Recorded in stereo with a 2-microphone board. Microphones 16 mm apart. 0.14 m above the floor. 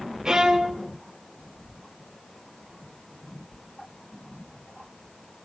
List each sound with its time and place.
0.2 s a violin: 50° right (ahead or behind), 1.8 m